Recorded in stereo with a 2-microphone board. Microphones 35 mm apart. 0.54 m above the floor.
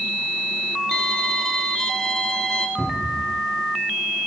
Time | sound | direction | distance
0.9 | a violin | 10° left (ahead or behind) | 1.3 m
2.8 | a cupboard door | 45° right (ahead or behind) | 6 m